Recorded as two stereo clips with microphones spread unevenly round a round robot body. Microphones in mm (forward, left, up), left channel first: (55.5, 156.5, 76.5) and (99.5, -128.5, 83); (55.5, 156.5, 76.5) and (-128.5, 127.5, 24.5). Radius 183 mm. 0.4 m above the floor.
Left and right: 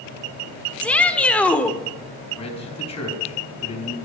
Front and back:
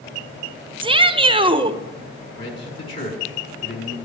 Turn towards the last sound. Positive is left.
turn(degrees=30)